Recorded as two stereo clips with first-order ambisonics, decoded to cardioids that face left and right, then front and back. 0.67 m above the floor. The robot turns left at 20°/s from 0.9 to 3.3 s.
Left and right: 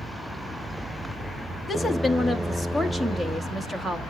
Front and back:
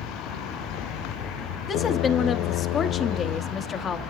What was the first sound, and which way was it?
A woman speaking, 15° left.